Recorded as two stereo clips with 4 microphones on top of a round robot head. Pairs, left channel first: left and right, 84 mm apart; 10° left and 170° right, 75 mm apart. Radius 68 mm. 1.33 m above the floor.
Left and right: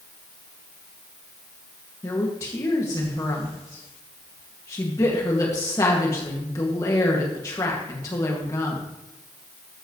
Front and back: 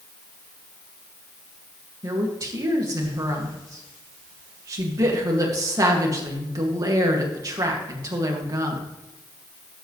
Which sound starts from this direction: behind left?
A woman speaking, at 2.0 s.